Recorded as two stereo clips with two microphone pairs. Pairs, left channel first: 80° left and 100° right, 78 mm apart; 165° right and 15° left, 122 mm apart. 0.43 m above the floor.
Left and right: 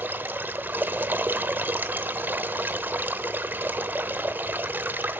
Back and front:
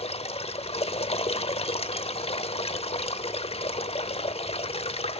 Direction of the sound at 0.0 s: 160° right.